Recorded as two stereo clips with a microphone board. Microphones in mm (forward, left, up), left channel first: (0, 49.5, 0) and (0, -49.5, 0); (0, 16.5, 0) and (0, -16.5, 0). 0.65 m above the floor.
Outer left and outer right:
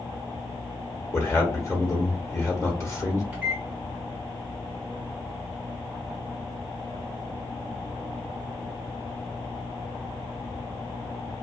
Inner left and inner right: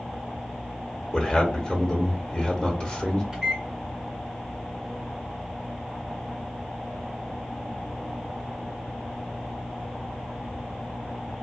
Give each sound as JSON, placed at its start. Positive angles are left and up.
{"t": 1.1, "sound": "a man speaking", "side_deg": 25, "distance_m": 0.9}
{"t": 3.3, "sound": "a microwave", "side_deg": -15, "distance_m": 1.4}